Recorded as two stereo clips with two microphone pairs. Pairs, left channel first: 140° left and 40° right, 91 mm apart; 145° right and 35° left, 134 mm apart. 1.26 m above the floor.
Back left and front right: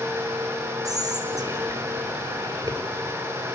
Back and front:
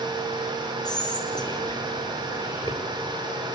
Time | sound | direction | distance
0.8 | whispering | 85° right | 5.5 m